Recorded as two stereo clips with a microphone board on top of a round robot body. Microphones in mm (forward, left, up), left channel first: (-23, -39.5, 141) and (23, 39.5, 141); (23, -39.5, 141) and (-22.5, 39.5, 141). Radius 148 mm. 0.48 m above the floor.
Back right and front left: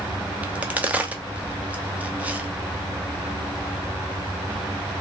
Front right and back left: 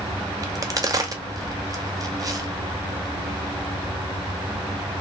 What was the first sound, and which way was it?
A crack, 125° left.